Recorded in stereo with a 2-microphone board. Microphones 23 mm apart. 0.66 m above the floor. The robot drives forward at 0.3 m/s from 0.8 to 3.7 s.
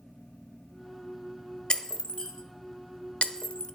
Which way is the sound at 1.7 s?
40° left (ahead or behind).